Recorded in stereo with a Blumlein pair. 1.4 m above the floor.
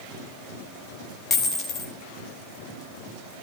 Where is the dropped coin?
20° left, 2 m.